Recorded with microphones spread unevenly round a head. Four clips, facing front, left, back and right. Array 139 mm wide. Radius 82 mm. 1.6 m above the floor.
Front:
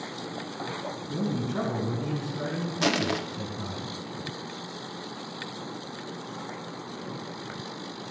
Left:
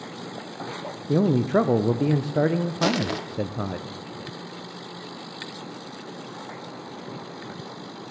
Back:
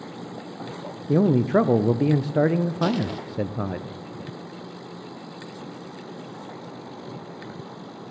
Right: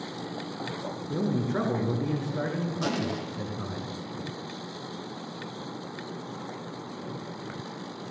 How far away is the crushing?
About 0.8 m.